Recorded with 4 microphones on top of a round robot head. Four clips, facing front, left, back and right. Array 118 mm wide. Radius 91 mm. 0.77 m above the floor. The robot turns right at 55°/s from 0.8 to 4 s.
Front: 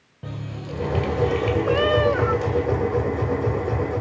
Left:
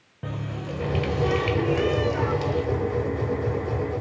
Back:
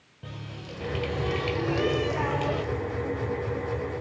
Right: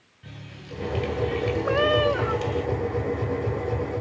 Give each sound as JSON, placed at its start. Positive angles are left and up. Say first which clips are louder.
{"t": 0.2, "sound": "a running tap", "louder": "left 10 dB, front 7 dB", "azimuth_deg": 65, "distance_m": 3.0}
{"t": 1.6, "sound": "a cat meowing", "louder": "right 2 dB, front 8 dB", "azimuth_deg": -55, "distance_m": 0.7}